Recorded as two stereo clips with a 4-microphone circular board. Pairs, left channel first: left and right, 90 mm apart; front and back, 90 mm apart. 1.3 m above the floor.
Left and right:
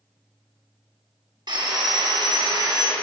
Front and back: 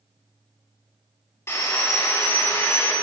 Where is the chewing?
I don't hear chewing.